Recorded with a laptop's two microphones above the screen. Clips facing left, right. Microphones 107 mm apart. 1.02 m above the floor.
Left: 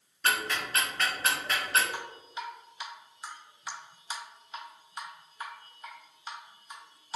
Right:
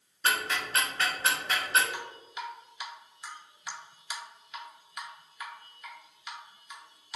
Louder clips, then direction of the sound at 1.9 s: Left 1 dB; 30° left (ahead or behind).